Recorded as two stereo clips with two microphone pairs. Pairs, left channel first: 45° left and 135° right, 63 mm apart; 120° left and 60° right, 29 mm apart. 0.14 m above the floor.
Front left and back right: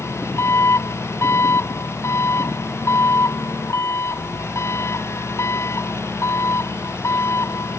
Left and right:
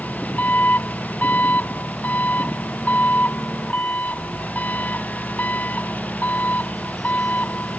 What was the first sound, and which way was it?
An engine running, 90° left.